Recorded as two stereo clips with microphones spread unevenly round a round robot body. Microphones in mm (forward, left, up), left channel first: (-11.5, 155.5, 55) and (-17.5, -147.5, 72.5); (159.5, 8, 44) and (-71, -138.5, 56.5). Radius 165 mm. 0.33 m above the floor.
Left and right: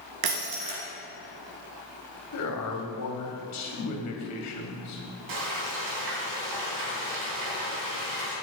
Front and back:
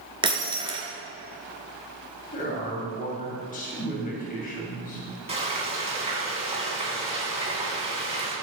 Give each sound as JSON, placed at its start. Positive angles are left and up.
{"t": 0.2, "sound": "breaking glass", "azimuth_deg": -75, "distance_m": 2.5}
{"t": 2.3, "sound": "a man speaking", "azimuth_deg": 90, "distance_m": 2.5}
{"t": 5.3, "sound": "frying", "azimuth_deg": -80, "distance_m": 4.0}